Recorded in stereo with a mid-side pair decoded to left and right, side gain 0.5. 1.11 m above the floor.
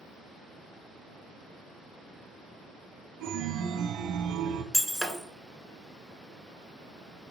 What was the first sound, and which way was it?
A chime, 65° right.